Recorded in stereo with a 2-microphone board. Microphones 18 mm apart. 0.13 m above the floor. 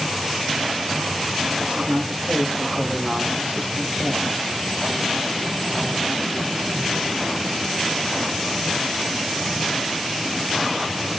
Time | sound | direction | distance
1.6 | a man speaking | 75° right (ahead or behind) | 5.5 m